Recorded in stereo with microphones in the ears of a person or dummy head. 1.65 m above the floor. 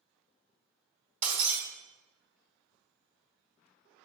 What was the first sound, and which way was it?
Breaking glass, 35° right (ahead or behind).